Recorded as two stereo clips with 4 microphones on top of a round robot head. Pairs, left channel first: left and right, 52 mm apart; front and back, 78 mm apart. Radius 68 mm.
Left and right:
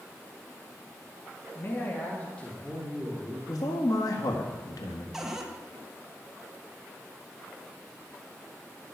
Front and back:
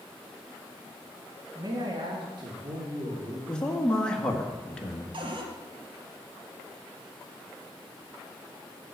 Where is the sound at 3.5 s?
80° left, 1.6 m.